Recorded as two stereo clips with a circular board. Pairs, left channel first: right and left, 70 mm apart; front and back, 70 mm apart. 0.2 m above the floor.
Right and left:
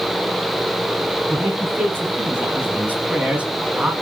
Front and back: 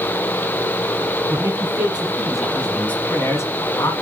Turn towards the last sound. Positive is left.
turn(degrees=15)